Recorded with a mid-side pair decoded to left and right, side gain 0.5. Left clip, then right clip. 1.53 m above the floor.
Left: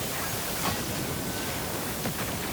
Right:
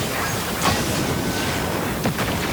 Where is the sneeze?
I don't hear a sneeze.